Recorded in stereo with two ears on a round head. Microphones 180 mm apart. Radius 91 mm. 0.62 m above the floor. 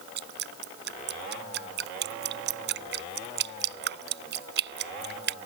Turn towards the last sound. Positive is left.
turn(degrees=-60)  # may be behind; listen again after turning